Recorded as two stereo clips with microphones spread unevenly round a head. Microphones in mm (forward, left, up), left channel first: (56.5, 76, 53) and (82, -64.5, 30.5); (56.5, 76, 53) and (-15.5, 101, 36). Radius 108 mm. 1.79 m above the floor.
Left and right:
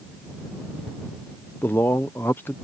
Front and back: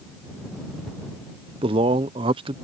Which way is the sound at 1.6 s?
175° left.